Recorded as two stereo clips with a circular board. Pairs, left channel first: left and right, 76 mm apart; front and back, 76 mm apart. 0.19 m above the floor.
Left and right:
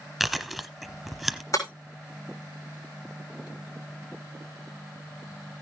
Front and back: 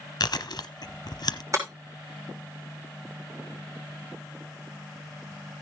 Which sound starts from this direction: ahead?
Chewing, at 0.2 s.